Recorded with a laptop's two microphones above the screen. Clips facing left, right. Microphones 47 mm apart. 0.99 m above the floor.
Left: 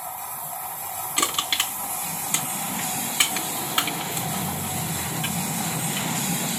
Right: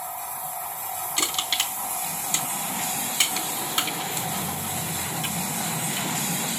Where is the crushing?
25° left (ahead or behind), 3.5 m.